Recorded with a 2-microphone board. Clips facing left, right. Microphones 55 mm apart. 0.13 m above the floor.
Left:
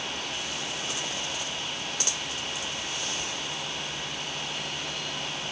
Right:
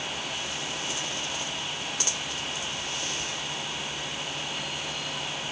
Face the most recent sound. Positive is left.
No sound to turn to.